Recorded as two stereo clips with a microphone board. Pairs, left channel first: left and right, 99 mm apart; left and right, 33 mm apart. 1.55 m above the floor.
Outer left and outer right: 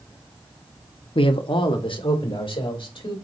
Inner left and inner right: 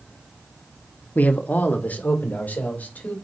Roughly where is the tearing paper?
I don't hear tearing paper.